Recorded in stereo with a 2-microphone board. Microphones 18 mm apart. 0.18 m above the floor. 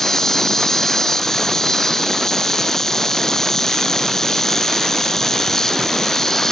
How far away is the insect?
About 0.9 m.